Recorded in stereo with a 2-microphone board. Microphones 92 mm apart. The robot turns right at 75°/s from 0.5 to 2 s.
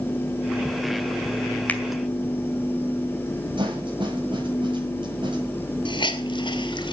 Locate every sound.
1.7 s a finger snap: 20° left (ahead or behind), 1.9 m; by 1.8 s 10° left (ahead or behind), 1.9 m
3.6 s a snare drum: 60° right (ahead or behind), 9 m
5.8 s a hiss: 60° left (ahead or behind), 2 m